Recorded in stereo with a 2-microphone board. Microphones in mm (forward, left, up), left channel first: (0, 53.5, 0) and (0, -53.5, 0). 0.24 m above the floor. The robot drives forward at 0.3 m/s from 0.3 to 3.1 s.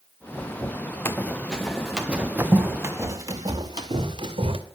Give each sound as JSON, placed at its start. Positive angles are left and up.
{"t": 1.1, "sound": "running footsteps", "side_deg": 20, "distance_m": 1.5}